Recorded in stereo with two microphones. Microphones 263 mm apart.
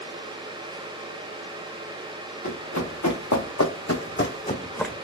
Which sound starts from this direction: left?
Running footsteps, at 2.4 s.